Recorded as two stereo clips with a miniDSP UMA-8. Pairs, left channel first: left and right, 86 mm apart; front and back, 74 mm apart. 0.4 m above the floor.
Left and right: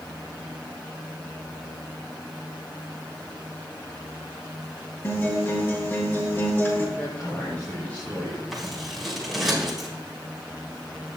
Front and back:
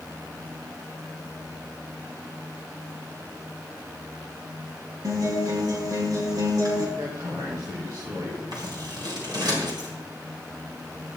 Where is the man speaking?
160° left, 4 m.